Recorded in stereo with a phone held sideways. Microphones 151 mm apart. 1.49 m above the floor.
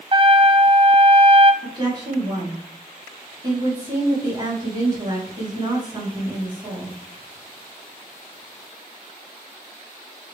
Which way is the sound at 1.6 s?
30° right (ahead or behind).